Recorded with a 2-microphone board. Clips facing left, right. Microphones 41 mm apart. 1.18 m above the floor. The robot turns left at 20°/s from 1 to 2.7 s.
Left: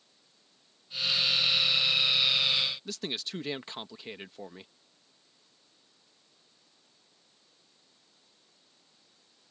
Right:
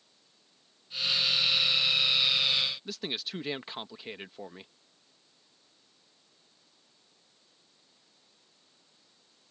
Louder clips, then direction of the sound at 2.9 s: Even; 5° right (ahead or behind).